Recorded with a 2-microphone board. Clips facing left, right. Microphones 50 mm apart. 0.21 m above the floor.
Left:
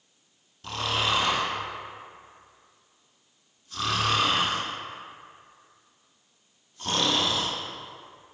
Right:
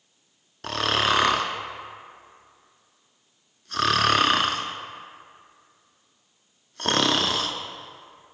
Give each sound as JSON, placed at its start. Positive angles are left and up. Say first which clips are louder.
{"t": 0.6, "sound": "snoring", "louder": "right 4 dB", "side_deg": -75, "distance_m": 0.6}